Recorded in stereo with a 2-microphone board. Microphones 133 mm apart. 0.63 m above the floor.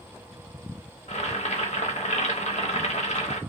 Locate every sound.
1.1 s boiling: 60° left (ahead or behind), 0.7 m